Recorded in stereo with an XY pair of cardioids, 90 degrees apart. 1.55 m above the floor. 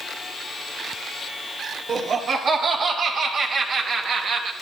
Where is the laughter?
70° right, 4.5 m; by 4.5 s 75° right, 2.5 m.